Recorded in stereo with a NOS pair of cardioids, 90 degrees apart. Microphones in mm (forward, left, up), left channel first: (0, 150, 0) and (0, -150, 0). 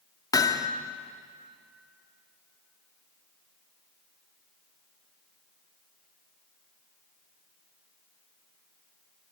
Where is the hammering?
15° left, 2 m.